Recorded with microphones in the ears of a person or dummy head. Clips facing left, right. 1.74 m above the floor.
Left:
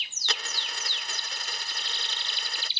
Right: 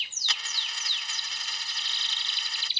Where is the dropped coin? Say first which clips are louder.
Left 7 dB; 35° left (ahead or behind).